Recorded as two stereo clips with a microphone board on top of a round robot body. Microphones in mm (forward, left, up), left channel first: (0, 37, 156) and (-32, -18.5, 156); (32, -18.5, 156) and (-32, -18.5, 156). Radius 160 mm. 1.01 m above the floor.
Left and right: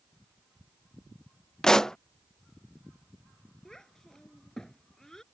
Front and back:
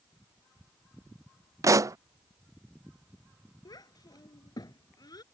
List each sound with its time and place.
1.6 s a pop: 140° left
3.6 s a child speaking: 25° right